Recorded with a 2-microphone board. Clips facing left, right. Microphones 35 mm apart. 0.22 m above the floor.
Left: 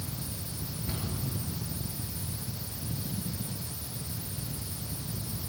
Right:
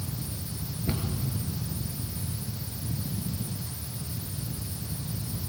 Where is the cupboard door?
55° right (ahead or behind), 3.5 m.